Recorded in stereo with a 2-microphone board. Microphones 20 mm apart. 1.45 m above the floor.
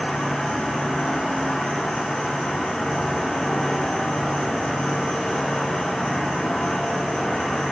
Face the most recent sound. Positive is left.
turn(degrees=60)  # may be behind; listen again after turning